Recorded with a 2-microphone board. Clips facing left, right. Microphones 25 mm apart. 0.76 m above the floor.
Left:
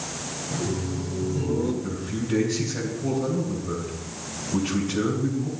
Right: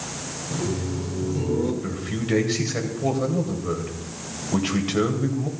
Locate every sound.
0.5 s laughter: 10° right (ahead or behind), 2 m
1.8 s a man speaking: 60° right (ahead or behind), 3.5 m